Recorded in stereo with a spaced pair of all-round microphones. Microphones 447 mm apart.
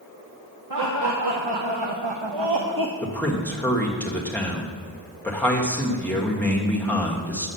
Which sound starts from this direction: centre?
A man speaking, at 3.0 s.